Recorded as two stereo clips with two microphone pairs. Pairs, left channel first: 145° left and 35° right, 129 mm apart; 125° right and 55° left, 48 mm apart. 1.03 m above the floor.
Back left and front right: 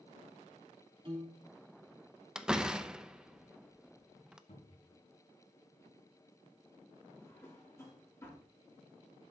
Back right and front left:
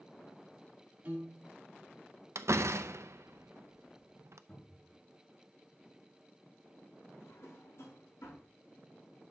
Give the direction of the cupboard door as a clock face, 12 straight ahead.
6 o'clock.